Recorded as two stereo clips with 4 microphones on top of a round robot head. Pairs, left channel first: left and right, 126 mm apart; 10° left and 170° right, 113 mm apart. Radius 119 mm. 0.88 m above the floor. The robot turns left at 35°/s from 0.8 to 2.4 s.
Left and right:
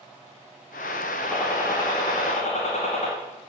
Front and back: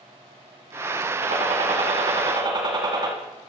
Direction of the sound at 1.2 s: Straight behind.